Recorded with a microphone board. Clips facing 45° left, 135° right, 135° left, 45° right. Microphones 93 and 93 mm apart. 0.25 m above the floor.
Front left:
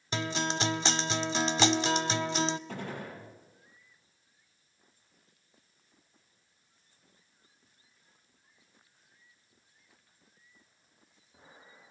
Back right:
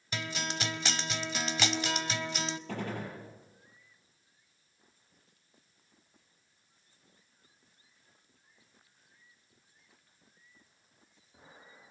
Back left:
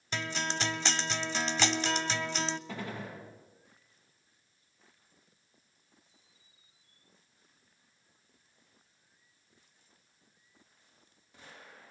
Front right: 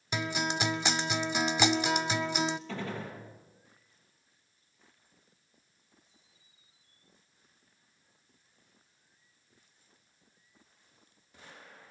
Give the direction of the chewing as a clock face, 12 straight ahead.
No chewing in this recording.